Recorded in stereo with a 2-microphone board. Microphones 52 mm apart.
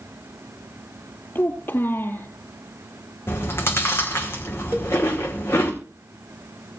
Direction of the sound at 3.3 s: 50° left (ahead or behind).